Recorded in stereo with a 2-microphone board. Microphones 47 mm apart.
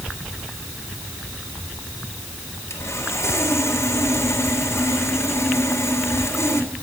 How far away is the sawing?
About 3.5 m.